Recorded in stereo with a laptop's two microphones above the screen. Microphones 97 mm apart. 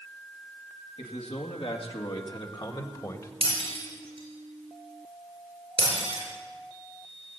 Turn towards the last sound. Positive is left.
turn(degrees=-70)  # may be behind; listen again after turning